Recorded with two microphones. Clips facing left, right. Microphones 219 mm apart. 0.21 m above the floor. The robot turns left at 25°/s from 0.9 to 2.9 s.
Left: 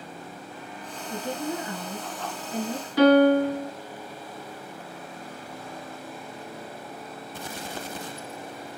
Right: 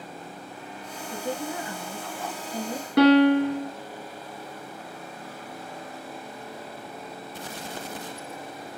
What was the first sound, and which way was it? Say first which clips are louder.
A woman speaking: left 1 dB; 25° left (ahead or behind).